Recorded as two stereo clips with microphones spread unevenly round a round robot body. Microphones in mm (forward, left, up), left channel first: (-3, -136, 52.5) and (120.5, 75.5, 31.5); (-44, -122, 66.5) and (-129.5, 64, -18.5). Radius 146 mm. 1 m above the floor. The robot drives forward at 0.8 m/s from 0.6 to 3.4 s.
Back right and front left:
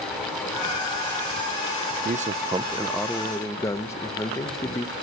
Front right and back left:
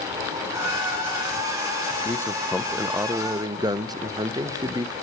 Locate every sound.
2.0 s a man speaking: 30° left, 0.7 m; by 4.9 s 160° left, 0.9 m